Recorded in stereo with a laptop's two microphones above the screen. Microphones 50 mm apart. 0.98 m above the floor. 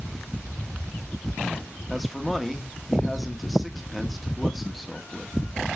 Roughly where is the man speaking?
Centre.